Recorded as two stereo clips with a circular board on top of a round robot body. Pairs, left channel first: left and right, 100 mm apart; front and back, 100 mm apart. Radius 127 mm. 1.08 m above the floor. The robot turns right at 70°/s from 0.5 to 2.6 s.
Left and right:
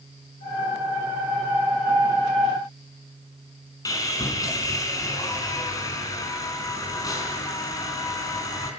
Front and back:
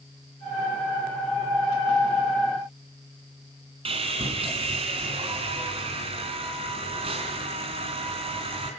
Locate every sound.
3.9 s sawing: 150° left, 4.5 m